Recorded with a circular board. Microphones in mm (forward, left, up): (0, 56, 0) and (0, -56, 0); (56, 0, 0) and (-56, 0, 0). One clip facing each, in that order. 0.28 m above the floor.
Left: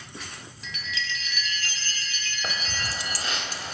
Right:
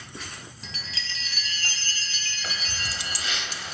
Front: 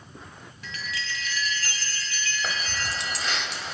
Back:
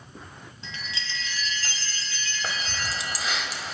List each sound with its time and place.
0.6 s a chime: 125° right, 1.7 m
2.4 s keys jangling: 95° left, 0.8 m